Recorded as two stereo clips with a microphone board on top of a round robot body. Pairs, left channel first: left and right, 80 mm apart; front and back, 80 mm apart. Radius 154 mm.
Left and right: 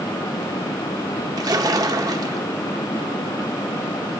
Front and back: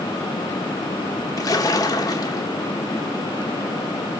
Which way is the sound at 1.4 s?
50° right.